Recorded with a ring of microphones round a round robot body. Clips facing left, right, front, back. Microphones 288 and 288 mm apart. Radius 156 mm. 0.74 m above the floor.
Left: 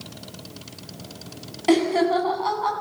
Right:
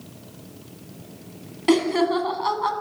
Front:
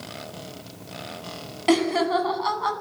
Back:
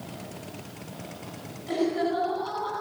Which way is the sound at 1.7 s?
20° right.